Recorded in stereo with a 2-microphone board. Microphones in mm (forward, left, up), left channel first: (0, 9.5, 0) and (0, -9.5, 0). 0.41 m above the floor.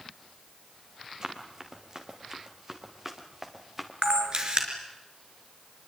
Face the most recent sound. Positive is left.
turn(degrees=-30)  # may be behind; listen again after turning